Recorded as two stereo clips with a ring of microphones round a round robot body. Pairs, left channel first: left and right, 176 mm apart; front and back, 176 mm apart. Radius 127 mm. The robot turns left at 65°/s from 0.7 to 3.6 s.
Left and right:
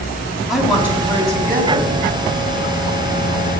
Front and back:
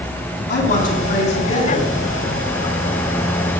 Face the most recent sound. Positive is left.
turn(degrees=170)